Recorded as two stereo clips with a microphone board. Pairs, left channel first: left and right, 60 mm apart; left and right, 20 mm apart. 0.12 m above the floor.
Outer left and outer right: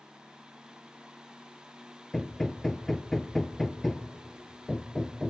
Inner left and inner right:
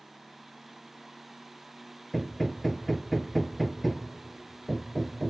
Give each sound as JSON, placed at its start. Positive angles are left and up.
{"t": 2.1, "sound": "hammering", "side_deg": 5, "distance_m": 0.6}